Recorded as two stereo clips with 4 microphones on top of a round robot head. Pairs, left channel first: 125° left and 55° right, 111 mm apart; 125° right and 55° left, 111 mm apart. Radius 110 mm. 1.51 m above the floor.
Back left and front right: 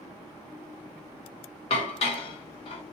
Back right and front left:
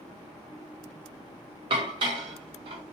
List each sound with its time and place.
1.7 s dishes clattering: 95° left, 0.6 m